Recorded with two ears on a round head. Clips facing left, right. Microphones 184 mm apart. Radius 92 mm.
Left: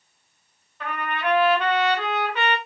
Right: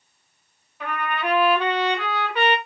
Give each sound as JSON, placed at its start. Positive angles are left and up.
{"t": 0.8, "sound": "a trumpet", "side_deg": -10, "distance_m": 3.0}